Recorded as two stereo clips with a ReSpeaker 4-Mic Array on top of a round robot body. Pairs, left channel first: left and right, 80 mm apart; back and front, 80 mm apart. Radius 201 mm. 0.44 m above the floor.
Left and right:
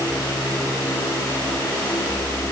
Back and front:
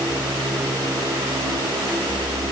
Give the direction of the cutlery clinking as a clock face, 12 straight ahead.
I don't hear cutlery clinking.